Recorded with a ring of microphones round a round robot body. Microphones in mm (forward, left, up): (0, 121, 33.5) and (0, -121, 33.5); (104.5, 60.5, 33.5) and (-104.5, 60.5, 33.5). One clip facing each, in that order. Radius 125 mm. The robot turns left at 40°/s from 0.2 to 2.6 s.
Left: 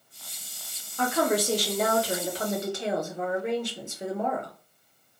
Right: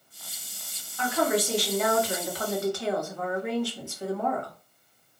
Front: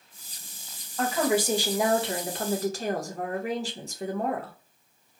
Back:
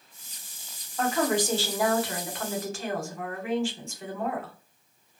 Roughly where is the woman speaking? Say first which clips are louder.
Left 1 dB, front 1 dB; left.